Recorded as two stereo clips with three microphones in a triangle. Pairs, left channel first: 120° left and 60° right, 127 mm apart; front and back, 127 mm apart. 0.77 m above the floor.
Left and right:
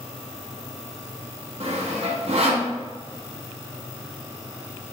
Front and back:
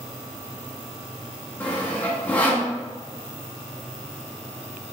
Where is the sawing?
75° right, 1.0 m.